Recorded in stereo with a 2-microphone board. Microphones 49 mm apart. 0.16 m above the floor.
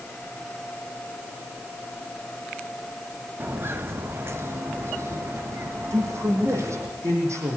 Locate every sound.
3.4 s footsteps: 45° right (ahead or behind), 2.0 m; by 6.9 s 70° right (ahead or behind), 4 m
5.9 s a man speaking: 75° right (ahead or behind), 7 m